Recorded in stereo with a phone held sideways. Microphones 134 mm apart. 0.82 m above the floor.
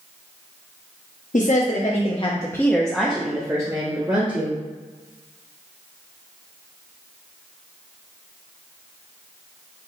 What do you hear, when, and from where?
1.3 s a woman speaking: 70° left (ahead or behind), 0.8 m; by 4.6 s 35° right (ahead or behind), 1.4 m